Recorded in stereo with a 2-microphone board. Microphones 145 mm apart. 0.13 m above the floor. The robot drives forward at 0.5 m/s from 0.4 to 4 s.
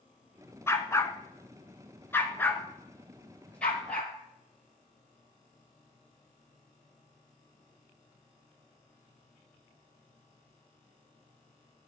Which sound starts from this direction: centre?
A dog barking, at 0.7 s.